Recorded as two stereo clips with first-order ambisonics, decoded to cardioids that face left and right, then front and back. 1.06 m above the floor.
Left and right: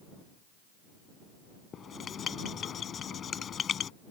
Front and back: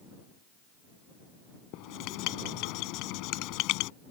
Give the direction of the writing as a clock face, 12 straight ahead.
11 o'clock.